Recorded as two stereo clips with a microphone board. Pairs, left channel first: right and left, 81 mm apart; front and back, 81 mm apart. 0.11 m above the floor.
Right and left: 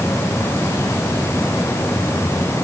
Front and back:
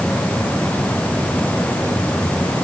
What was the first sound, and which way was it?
Only background noise.